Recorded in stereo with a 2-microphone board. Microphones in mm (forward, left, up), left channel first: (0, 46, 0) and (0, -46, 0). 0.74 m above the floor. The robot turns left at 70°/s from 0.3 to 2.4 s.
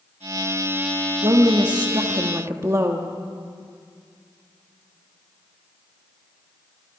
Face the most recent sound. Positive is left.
turn(degrees=-140)